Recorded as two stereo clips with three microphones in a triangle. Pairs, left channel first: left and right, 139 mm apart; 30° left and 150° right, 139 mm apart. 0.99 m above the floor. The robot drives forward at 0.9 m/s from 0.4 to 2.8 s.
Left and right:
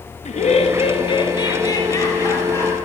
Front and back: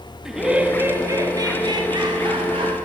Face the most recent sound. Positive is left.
turn(degrees=160)